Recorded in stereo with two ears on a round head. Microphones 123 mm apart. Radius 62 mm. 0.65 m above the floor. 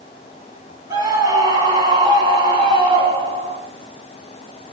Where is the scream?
25° right (ahead or behind), 5.5 m; by 3.6 s 40° right (ahead or behind), 6.5 m.